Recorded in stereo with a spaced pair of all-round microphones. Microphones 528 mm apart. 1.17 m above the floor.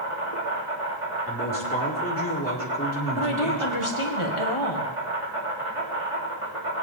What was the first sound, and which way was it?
An insect, 75° right (ahead or behind).